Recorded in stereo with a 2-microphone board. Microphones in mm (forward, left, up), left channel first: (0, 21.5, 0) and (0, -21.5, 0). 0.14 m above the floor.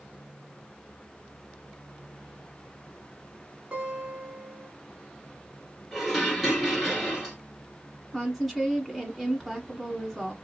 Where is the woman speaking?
Centre (ahead or behind), 1.2 m.